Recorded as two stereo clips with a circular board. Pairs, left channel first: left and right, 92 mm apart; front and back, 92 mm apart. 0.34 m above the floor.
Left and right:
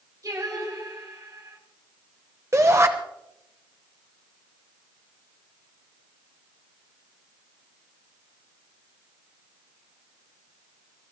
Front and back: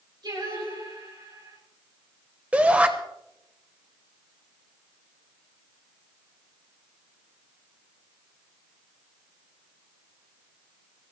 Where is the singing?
140° right, 9.5 m.